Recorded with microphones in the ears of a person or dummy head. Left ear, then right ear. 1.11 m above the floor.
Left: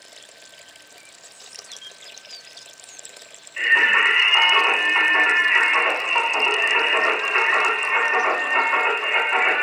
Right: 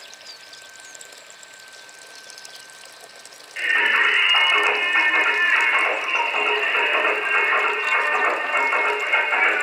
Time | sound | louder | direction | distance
3.6 | singing | left 2 dB | 60° right (ahead or behind) | 1.5 m